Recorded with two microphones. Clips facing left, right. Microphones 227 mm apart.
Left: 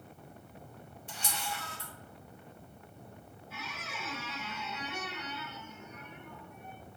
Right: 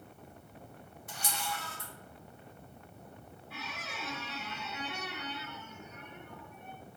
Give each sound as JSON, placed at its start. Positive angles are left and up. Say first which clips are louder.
{"t": 1.1, "sound": "a camera shutter", "louder": "right 1 dB", "side_deg": 30, "distance_m": 1.2}
{"t": 3.5, "sound": "a squeak", "louder": "even", "side_deg": -60, "distance_m": 1.0}